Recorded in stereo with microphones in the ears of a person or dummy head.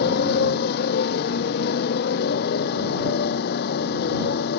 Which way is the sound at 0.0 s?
55° left (ahead or behind).